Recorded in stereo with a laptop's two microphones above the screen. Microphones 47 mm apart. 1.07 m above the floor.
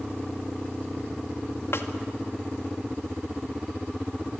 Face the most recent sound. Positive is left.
turn(degrees=60)  # may be behind; listen again after turning